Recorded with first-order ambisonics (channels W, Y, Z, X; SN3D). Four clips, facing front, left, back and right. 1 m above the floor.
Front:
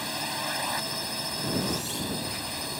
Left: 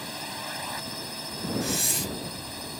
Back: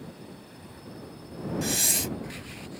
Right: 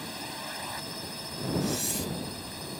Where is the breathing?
155° left.